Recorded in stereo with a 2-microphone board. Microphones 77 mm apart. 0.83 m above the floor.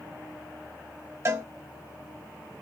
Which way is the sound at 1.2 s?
35° right (ahead or behind).